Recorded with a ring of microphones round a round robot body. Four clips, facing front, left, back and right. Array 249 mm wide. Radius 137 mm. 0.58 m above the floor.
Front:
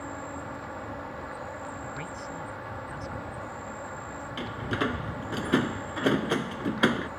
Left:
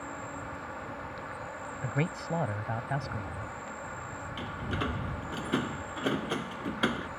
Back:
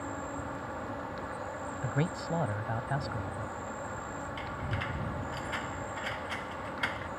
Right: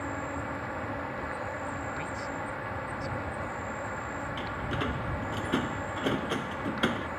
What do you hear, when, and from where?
0.0 s an insect: 85° right
1.8 s a man speaking: 130° left
4.4 s a door slam: straight ahead